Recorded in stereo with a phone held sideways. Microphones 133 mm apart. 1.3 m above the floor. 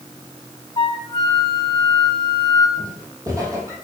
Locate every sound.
0.8 s a flute: 35° left (ahead or behind), 1.3 m
2.8 s footsteps: 25° right (ahead or behind), 3 m